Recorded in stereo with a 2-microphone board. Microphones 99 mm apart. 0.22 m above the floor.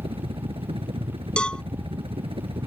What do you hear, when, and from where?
0.0 s a helicopter: 70° right (ahead or behind)
1.4 s a cowbell: 10° left (ahead or behind)